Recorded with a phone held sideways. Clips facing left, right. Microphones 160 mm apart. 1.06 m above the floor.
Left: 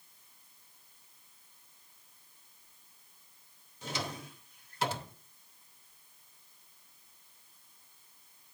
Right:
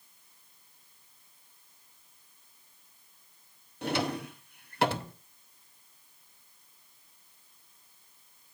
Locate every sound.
3.8 s a drawer: 65° right (ahead or behind), 0.6 m